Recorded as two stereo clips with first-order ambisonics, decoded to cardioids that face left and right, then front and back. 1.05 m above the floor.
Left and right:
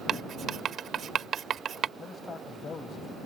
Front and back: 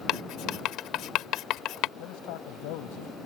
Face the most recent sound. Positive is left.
turn(degrees=20)